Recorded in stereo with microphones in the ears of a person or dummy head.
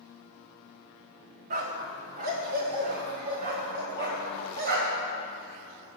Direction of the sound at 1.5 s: 40° right (ahead or behind).